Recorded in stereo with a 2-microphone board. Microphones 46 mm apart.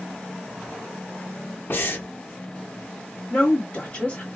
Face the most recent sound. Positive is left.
turn(degrees=30)  # may be behind; listen again after turning